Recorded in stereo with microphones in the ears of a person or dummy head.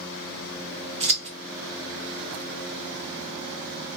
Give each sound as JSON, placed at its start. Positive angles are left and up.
{"t": 1.0, "sound": "scissors", "side_deg": -35, "distance_m": 1.0}